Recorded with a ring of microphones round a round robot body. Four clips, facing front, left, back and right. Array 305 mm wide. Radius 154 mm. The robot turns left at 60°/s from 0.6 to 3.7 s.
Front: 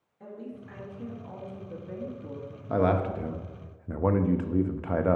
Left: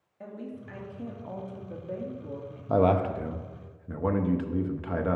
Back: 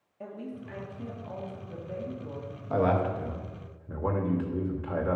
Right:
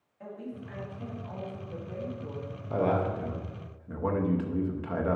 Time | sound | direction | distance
0.2 | a woman speaking | 145° left | 1.8 m
2.7 | a man speaking | 70° left | 0.6 m